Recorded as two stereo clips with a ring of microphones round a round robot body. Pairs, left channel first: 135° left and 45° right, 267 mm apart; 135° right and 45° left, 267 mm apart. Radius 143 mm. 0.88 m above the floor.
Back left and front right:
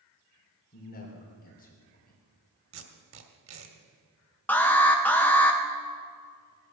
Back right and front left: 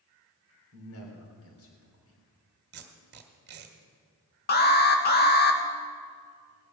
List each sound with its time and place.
0.7 s a man speaking: 170° right, 3 m
2.7 s tape being pulled: 5° right, 1.5 m
4.5 s an alarm: 145° right, 1.6 m